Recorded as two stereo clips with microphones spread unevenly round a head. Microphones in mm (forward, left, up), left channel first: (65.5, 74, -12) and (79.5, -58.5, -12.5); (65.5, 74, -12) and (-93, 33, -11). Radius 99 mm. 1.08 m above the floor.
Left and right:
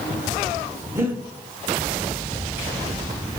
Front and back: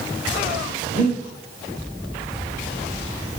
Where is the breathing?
20° right, 1.0 m.